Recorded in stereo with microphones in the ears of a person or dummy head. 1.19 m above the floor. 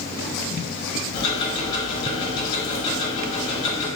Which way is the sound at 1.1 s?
25° left (ahead or behind).